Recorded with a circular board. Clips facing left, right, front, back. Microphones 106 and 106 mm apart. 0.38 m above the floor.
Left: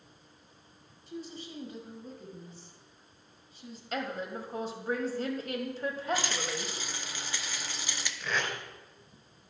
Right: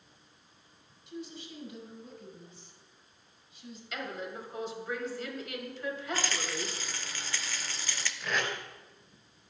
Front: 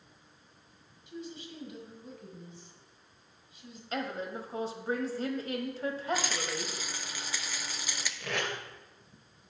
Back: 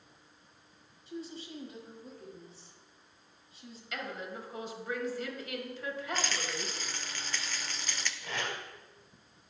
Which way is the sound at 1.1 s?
130° left.